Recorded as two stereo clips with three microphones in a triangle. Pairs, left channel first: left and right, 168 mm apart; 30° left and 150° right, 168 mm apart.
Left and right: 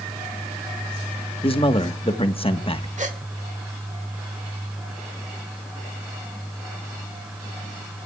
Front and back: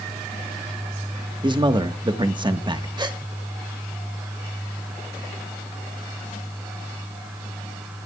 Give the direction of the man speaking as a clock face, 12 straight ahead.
7 o'clock.